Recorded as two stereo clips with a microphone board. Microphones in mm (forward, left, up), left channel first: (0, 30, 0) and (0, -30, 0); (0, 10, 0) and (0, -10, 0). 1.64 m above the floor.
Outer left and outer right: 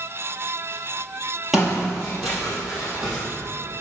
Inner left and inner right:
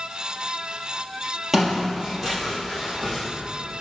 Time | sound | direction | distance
1.5 | footsteps | 5° right (ahead or behind) | 2.5 m